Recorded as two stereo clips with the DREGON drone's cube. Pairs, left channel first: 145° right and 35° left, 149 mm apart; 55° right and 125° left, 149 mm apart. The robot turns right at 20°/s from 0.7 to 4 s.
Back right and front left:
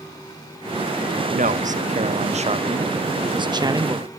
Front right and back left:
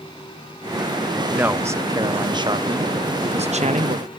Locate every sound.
1.3 s a man speaking: 45° left, 1.4 m; by 4.1 s 100° left, 1.4 m